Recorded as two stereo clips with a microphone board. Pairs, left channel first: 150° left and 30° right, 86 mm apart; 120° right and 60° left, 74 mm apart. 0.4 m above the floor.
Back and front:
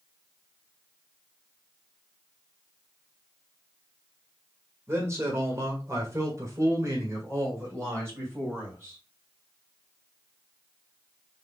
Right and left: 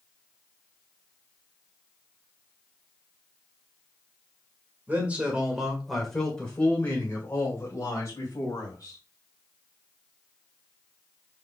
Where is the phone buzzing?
I don't hear a phone buzzing.